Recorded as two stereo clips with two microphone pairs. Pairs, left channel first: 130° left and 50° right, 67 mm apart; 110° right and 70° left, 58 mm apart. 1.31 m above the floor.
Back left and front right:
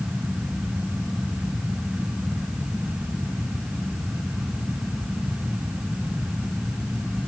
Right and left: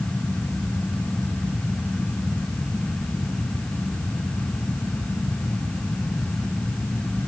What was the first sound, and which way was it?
Only background noise.